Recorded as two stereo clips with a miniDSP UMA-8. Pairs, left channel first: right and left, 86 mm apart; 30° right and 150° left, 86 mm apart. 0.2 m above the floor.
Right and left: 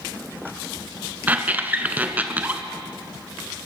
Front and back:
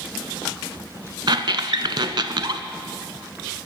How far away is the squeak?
About 0.7 m.